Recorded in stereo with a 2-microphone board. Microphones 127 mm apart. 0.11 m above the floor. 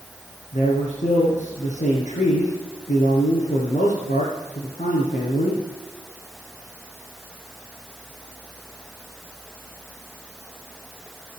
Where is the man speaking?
75° left (ahead or behind), 7 m.